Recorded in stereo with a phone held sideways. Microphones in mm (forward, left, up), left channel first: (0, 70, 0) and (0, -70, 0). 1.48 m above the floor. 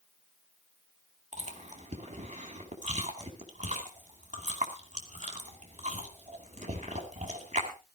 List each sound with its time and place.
1.3 s chewing: 60° right (ahead or behind), 2.5 m